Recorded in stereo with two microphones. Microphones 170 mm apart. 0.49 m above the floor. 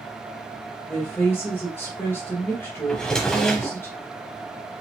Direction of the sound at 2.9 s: 5° left (ahead or behind).